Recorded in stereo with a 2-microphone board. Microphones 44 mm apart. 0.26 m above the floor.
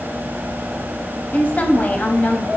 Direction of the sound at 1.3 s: 40° left (ahead or behind).